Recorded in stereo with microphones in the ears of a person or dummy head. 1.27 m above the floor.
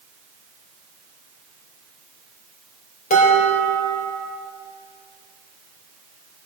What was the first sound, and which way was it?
Dishes clattering, 40° left (ahead or behind).